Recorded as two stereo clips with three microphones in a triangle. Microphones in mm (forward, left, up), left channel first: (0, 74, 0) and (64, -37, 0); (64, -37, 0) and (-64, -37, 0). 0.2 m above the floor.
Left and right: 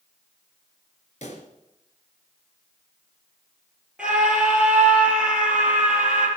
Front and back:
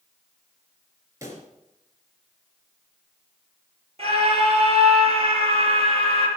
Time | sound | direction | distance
1.2 | a pop | 120° left | 3 m
4.0 | a scream | 140° right | 4.5 m